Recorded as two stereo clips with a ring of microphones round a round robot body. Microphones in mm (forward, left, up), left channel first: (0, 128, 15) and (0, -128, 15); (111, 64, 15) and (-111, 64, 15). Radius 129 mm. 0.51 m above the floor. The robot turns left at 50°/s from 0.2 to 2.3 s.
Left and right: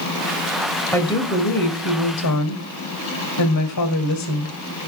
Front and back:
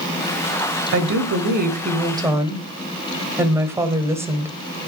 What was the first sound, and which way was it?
A woman speaking, 170° left.